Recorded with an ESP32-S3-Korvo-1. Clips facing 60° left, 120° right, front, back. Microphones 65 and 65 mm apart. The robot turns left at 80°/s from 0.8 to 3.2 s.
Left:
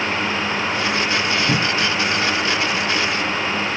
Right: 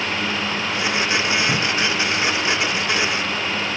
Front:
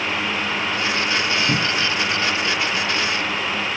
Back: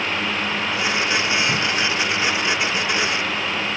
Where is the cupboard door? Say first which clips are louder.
Left 1 dB, even; 35° left; by 1.9 s straight ahead.